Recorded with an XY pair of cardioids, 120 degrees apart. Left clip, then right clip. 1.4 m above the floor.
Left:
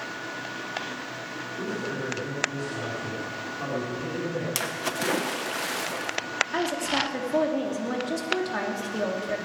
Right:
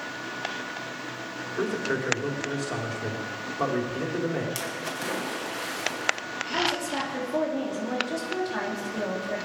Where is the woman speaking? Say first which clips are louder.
Right 3 dB; 25° left, 3 m.